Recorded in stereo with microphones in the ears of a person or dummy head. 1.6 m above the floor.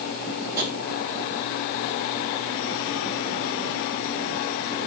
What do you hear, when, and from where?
0.6 s tapping: 60° right (ahead or behind), 5.5 m